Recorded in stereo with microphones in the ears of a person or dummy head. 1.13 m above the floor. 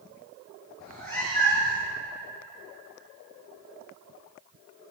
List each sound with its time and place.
0.8 s a cat meowing: 10° left (ahead or behind), 5.5 m